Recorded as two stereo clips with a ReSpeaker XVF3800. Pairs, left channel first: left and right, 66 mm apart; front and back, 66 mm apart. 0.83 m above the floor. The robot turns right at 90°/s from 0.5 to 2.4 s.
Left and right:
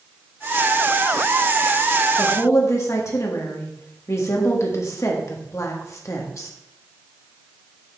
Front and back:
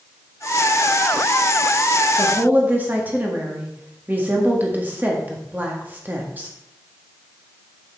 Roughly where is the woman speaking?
Left.